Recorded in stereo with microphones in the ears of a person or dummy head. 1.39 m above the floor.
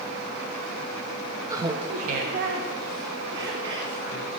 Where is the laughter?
15° right (ahead or behind), 1.0 m; by 4.4 s 75° right (ahead or behind), 4 m.